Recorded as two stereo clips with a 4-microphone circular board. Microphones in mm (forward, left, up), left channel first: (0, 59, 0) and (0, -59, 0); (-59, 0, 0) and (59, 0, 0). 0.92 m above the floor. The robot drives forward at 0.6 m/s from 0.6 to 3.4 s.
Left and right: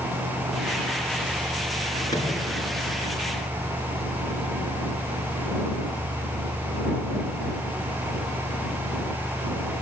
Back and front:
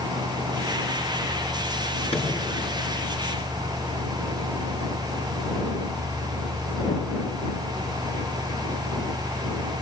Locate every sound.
2.1 s a microwave: 145° left, 9 m